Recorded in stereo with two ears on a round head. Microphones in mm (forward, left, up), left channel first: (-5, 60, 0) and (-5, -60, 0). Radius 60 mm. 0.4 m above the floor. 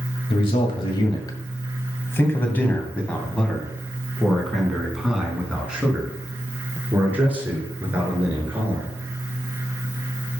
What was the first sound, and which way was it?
A man speaking, 45° left (ahead or behind).